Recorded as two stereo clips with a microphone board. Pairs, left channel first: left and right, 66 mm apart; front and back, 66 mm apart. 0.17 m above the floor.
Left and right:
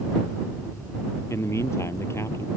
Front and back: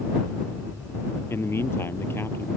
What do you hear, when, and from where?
1.3 s a man speaking: 50° left